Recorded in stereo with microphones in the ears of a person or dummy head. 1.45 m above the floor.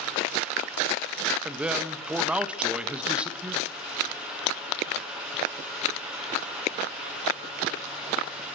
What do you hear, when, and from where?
1.4 s a man speaking: 5° right (ahead or behind), 1.4 m